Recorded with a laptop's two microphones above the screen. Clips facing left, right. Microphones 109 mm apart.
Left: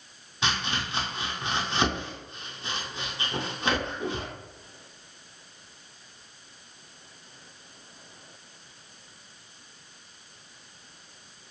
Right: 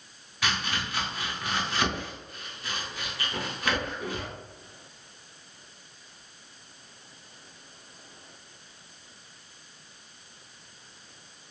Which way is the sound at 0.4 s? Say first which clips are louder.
Left 1 dB; 25° left (ahead or behind).